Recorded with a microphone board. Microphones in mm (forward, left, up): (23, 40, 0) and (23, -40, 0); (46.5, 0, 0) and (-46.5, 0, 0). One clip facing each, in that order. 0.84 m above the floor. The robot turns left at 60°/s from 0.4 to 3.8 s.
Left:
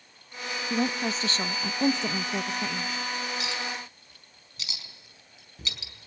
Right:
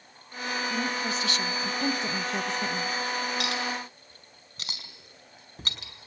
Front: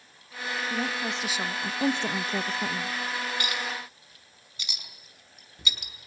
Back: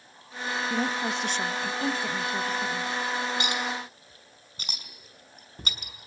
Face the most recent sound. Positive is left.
turn(degrees=-135)